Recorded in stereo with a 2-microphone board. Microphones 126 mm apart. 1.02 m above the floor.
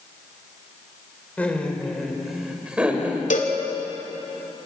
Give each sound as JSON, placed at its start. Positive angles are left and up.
{"t": 1.4, "sound": "laughter", "side_deg": 10, "distance_m": 4.5}
{"t": 3.3, "sound": "a cowbell", "side_deg": 80, "distance_m": 3.0}